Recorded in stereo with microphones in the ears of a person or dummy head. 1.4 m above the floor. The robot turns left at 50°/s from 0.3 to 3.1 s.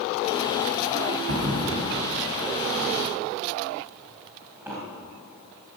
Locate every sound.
1.3 s a thud: 65° right (ahead or behind), 2.5 m; by 4.8 s 10° right (ahead or behind), 2.5 m